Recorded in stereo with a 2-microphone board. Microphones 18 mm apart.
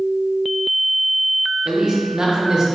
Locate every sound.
1.6 s a man speaking: 40° right (ahead or behind), 1.1 m